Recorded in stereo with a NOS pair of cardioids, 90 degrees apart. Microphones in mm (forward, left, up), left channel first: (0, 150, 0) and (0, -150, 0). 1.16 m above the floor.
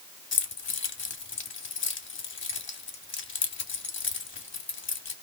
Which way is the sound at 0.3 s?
40° left.